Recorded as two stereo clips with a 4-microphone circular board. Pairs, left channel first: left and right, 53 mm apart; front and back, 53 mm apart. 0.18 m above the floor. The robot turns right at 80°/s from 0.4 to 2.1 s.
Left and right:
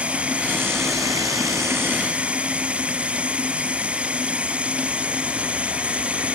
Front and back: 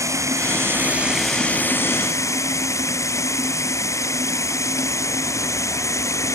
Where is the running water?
160° right; by 6.3 s 25° right.